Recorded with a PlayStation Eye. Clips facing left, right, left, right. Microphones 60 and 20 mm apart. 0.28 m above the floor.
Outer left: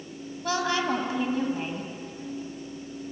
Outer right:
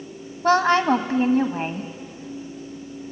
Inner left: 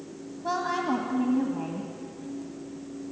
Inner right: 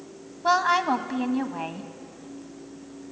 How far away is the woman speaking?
About 1.7 m.